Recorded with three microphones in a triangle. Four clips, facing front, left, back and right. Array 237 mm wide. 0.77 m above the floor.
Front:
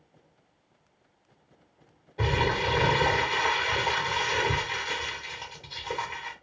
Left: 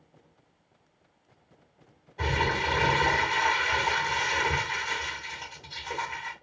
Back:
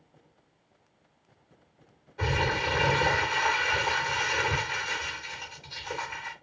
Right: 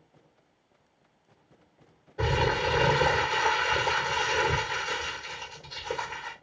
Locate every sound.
2.2 s crumpling: 45° right, 1.9 m